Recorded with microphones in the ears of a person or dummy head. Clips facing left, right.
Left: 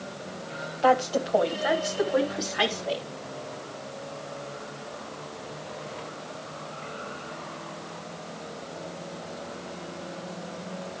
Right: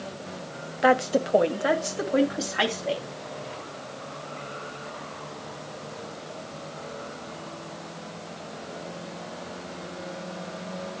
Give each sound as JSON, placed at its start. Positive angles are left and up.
{"t": 0.8, "sound": "a woman speaking", "side_deg": -30, "distance_m": 1.3}